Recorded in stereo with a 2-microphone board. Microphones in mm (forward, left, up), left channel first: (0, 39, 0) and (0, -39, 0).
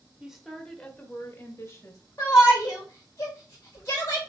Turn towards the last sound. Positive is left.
turn(degrees=40)  # may be behind; listen again after turning